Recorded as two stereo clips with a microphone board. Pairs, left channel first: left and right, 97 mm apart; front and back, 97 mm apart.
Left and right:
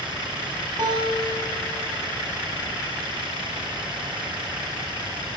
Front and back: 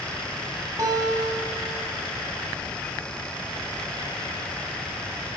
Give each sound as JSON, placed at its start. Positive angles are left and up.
{"t": 0.8, "sound": "a guitar", "azimuth_deg": -130, "distance_m": 3.5}